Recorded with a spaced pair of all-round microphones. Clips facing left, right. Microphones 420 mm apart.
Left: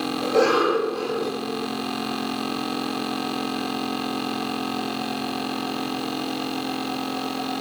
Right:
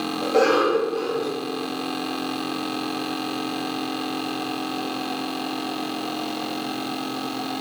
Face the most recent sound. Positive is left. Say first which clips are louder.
# right 1 dB
turn(degrees=15)  # may be behind; listen again after turning